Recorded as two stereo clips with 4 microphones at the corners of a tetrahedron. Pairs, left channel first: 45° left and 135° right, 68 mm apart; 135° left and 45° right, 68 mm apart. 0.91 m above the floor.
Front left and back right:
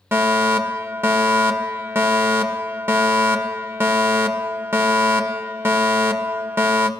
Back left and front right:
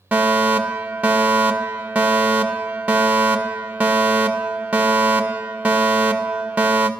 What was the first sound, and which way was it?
A fire alarm, 105° right.